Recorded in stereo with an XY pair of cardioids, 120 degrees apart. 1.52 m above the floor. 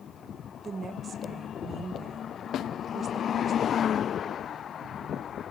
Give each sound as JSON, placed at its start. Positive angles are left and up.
{"t": 0.6, "sound": "a woman speaking", "azimuth_deg": -35, "distance_m": 1.6}
{"t": 2.5, "sound": "a snare drum", "azimuth_deg": 60, "distance_m": 0.6}